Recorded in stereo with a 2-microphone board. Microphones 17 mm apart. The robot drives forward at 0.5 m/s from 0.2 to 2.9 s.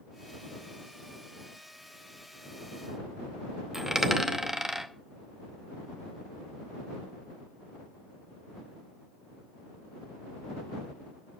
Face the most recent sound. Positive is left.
turn(degrees=-20)  # may be behind; listen again after turning